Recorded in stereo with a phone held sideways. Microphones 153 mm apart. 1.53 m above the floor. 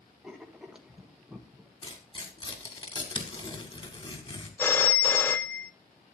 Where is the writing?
5° right (ahead or behind), 1.2 m.